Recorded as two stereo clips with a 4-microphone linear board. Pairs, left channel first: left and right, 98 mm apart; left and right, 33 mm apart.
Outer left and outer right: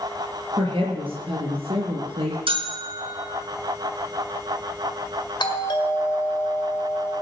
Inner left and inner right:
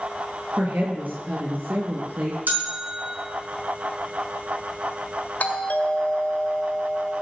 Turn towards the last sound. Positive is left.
turn(degrees=50)  # may be behind; listen again after turning